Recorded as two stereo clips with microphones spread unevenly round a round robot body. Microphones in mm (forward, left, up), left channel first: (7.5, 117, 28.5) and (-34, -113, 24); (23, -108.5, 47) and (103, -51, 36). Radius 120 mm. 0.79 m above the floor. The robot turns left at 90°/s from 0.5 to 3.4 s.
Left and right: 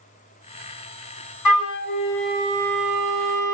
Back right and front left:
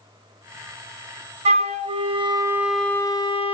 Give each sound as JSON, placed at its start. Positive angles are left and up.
{"t": 1.4, "sound": "a flute", "azimuth_deg": 60, "distance_m": 0.7}